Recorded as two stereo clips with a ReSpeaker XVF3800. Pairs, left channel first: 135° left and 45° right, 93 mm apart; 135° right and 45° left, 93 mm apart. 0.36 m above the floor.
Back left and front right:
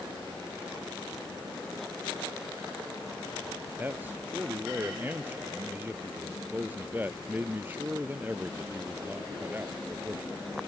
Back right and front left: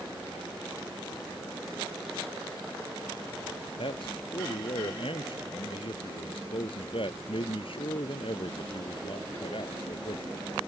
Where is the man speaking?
115° right.